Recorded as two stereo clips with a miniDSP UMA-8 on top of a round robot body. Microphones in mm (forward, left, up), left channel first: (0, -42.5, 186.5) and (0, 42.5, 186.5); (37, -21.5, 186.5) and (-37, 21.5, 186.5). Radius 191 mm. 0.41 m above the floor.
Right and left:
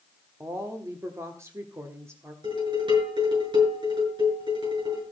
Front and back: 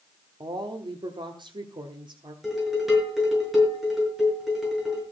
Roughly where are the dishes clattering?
Ahead left.